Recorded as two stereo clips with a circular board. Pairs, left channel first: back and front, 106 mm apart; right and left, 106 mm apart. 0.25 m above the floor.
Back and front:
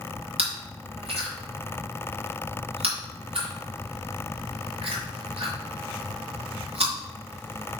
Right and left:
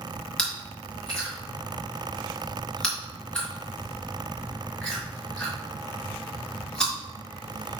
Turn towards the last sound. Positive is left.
turn(degrees=-10)